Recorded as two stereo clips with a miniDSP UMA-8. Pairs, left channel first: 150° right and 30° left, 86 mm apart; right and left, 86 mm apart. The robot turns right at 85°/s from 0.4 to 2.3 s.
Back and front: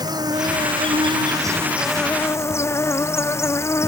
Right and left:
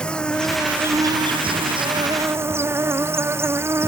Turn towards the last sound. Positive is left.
turn(degrees=150)